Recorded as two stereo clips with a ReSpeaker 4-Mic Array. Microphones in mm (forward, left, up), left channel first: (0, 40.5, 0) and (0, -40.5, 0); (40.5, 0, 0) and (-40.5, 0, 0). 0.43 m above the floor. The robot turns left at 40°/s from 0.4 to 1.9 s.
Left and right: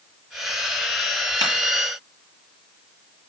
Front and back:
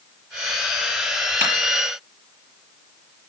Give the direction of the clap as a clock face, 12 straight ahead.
8 o'clock.